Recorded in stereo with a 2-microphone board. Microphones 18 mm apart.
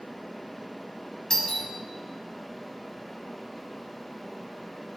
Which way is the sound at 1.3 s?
30° left (ahead or behind).